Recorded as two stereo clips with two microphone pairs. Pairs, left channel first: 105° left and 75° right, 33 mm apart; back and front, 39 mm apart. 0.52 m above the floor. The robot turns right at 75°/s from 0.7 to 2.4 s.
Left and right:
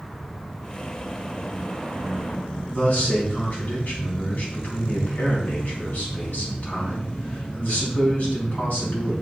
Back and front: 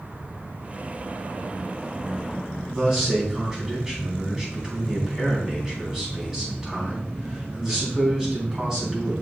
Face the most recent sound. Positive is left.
turn(degrees=70)